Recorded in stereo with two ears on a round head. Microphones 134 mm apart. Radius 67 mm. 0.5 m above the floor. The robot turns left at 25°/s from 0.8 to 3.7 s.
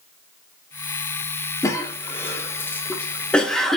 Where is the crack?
I don't hear a crack.